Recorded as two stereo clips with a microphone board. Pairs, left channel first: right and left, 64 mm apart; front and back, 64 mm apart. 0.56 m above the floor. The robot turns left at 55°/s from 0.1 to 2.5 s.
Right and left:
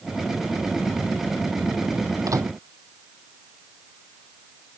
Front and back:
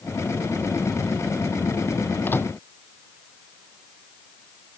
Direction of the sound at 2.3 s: 60° left.